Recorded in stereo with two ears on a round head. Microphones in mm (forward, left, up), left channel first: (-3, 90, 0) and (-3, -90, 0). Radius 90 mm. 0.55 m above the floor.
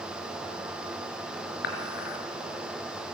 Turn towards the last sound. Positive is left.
turn(degrees=55)  # may be behind; listen again after turning